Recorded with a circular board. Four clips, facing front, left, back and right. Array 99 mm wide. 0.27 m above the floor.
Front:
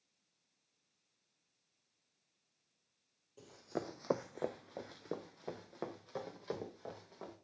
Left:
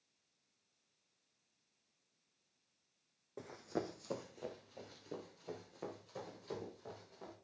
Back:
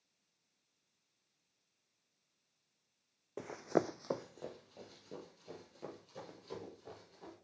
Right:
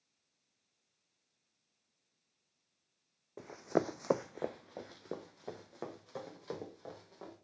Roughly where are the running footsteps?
Behind.